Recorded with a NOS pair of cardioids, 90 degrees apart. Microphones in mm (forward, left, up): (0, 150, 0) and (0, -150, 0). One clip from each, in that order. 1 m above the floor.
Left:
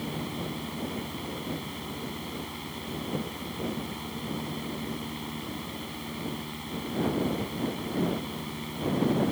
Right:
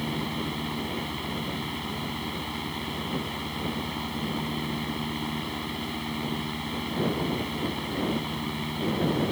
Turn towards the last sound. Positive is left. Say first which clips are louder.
# right 4 dB
turn(degrees=-45)